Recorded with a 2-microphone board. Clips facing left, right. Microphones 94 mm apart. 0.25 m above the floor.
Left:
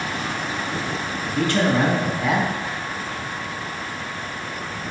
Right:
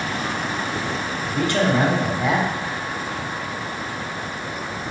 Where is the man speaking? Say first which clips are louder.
Even; 20° right (ahead or behind), 1.0 m.